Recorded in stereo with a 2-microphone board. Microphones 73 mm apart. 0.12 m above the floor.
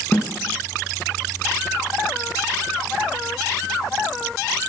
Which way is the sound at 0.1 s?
25° left (ahead or behind).